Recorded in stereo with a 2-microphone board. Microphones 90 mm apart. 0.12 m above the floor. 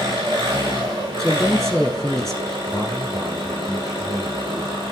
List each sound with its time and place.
0.0 s an engine running: 55° right (ahead or behind), 3.5 m
1.2 s a woman speaking: 5° left (ahead or behind), 1.8 m
2.7 s a man speaking: 10° right (ahead or behind), 5 m